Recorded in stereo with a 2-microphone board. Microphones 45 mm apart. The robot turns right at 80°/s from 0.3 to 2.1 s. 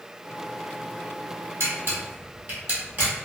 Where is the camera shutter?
80° right, 1.4 m; by 3.1 s 40° right (ahead or behind), 1.4 m.